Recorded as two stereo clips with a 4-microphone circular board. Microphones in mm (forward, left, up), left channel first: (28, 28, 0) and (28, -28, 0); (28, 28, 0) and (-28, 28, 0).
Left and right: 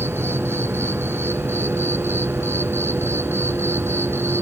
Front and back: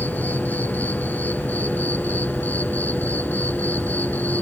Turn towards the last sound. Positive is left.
turn(degrees=-55)